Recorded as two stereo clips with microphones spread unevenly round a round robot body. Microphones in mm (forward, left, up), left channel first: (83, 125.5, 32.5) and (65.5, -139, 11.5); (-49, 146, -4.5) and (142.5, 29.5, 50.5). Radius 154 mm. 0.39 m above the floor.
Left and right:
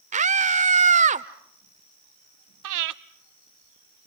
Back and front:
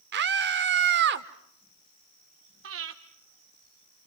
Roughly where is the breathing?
Right.